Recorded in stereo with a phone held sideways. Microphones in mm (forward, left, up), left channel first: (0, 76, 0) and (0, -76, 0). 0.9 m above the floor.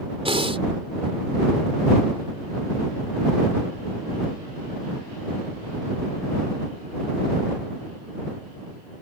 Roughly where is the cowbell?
I don't hear a cowbell.